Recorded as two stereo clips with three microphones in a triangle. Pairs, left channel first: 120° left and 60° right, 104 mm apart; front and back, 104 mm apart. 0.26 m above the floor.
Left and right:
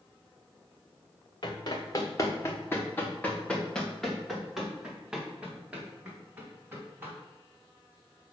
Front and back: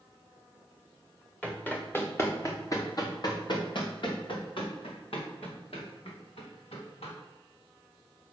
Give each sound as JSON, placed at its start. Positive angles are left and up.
{"t": 1.4, "sound": "running footsteps", "azimuth_deg": 75, "distance_m": 2.5}